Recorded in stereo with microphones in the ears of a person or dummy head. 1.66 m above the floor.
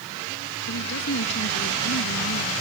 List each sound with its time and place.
0.7 s a woman speaking: 65° left (ahead or behind)